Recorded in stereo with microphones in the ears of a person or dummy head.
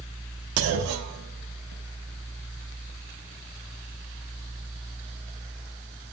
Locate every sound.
0.6 s a clunk: 80° right, 1.2 m